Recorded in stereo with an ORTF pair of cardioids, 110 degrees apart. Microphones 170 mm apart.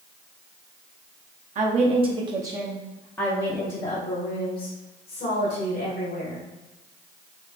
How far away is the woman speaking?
About 0.9 m.